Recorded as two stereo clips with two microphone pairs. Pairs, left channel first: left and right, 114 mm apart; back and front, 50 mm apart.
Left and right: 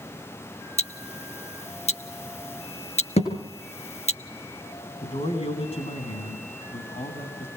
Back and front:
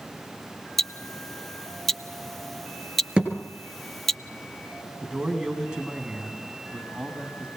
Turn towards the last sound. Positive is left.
turn(degrees=75)